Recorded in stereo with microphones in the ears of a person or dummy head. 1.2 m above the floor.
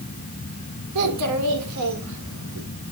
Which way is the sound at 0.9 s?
80° right.